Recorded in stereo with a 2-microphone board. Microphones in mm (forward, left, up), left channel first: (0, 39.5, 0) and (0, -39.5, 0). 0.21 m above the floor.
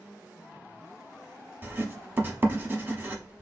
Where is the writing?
25° right (ahead or behind), 0.8 m.